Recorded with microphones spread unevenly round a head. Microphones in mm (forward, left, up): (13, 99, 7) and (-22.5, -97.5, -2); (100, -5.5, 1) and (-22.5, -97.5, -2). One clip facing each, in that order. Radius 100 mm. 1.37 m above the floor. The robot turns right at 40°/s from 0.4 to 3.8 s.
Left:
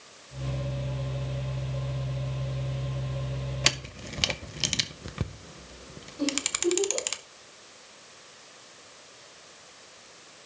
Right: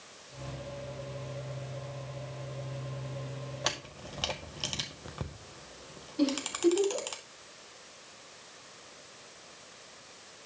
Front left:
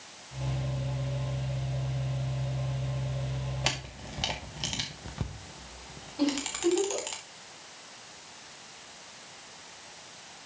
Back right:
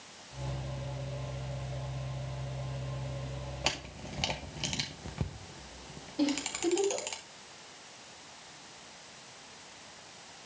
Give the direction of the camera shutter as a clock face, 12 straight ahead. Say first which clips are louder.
Left 3 dB, front left 1 dB; 8 o'clock.